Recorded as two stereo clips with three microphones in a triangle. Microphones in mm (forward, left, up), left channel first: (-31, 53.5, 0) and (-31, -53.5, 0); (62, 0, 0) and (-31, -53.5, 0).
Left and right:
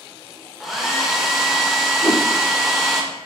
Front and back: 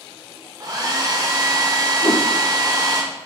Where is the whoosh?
40° left, 0.6 m.